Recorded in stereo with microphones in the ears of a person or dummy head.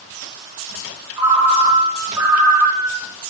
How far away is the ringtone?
About 2.5 m.